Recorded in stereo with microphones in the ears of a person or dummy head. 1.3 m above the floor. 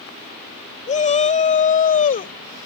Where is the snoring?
No snoring in this recording.